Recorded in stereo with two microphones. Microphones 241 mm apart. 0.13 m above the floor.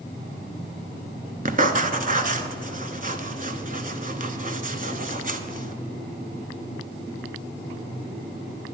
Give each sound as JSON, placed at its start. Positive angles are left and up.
{"t": 1.4, "sound": "writing", "side_deg": -40, "distance_m": 0.6}